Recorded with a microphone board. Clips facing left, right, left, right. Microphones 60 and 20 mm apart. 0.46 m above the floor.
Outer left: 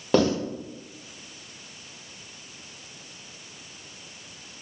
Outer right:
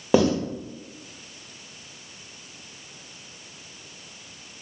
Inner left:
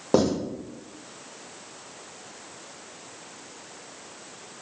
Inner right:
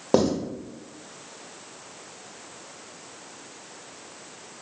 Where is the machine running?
I don't hear a machine running.